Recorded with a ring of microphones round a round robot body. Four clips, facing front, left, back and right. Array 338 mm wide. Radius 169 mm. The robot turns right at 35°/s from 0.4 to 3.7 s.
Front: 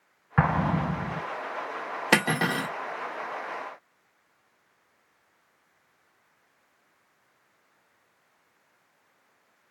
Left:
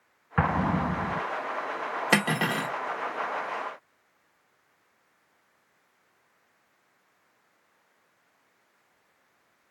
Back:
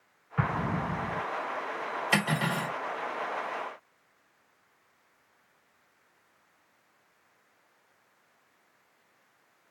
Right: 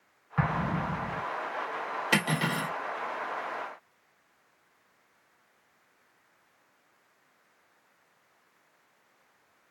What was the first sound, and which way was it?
An explosion, 30° left.